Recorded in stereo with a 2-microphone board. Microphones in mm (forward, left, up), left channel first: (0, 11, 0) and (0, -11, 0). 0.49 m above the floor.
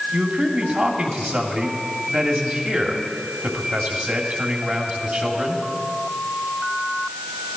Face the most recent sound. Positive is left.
turn(degrees=-70)  # may be behind; listen again after turning